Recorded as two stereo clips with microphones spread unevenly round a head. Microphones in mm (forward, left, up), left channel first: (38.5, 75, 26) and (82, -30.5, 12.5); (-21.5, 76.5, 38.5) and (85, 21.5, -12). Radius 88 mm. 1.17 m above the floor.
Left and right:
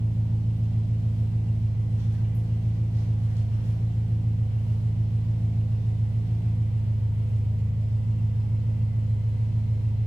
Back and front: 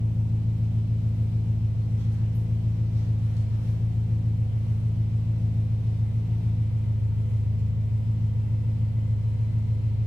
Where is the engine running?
10° right, 1.1 m.